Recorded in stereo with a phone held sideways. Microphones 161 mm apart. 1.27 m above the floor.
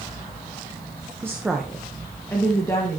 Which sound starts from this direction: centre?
A woman speaking, at 1.2 s.